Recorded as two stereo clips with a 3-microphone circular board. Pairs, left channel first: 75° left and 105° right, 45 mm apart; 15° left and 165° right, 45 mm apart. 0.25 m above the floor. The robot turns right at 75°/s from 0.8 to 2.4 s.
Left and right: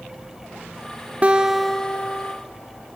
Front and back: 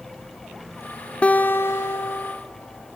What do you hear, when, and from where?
1.2 s a guitar: 45° right, 1.0 m; by 2.4 s 40° left, 1.0 m